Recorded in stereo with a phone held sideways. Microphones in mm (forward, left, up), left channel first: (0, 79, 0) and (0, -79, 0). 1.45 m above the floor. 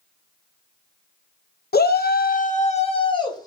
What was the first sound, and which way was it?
A shout, 85° left.